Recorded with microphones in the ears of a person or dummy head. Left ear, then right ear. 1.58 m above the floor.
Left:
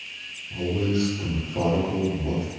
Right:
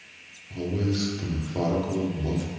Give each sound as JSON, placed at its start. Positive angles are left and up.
{"t": 0.5, "sound": "a man speaking", "side_deg": -40, "distance_m": 1.2}